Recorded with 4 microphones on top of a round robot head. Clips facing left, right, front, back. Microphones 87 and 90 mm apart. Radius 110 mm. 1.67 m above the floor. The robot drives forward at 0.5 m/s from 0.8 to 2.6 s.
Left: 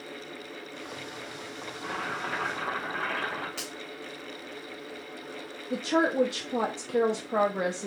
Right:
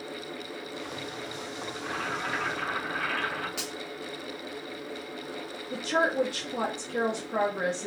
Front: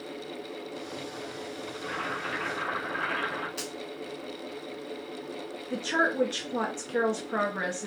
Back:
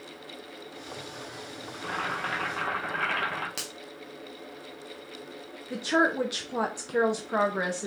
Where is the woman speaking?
110° left, 0.7 m.